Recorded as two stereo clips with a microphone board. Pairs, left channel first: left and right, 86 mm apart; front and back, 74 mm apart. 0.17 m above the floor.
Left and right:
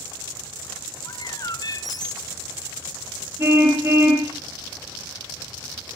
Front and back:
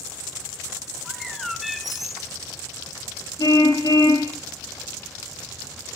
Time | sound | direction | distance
1.1 | a bird | 95° left | 0.8 m
3.4 | a car horn | 30° right | 7 m